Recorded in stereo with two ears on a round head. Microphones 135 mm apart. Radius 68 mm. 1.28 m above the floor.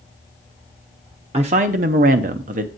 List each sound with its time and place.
1.3 s a woman speaking: 40° right (ahead or behind), 0.5 m; by 2.7 s 55° right (ahead or behind), 0.8 m